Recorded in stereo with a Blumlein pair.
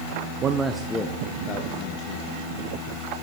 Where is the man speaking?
30° right, 0.6 m; by 2.4 s 40° left, 1.9 m.